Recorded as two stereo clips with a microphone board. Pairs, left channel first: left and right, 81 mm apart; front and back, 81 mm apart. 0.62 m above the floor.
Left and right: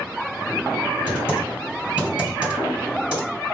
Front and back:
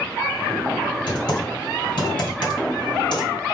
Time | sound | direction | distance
1.1 | typing on a keyboard | 15° right | 2.5 m